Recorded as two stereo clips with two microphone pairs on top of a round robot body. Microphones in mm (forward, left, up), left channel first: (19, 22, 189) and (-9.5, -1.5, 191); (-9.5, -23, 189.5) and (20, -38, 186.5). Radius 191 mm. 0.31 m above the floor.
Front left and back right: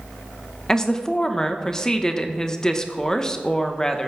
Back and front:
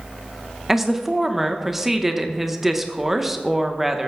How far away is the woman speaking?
About 1.1 m.